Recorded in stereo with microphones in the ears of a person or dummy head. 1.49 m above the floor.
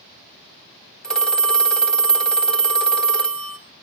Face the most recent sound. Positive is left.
turn(degrees=0)  # may be behind; listen again after turning